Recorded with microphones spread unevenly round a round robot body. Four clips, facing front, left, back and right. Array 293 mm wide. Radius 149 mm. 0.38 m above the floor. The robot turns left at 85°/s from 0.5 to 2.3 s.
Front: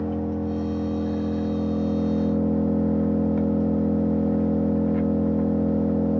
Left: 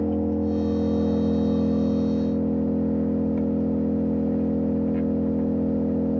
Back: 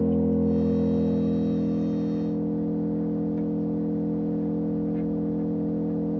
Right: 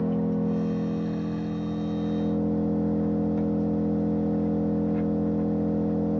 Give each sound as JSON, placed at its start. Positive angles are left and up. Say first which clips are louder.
{"t": 0.0, "sound": "an engine running", "louder": "left 2 dB, back 4 dB", "azimuth_deg": 175, "distance_m": 1.2}